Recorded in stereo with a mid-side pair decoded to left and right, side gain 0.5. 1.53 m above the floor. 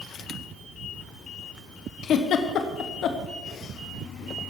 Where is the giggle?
60° left, 1.2 m.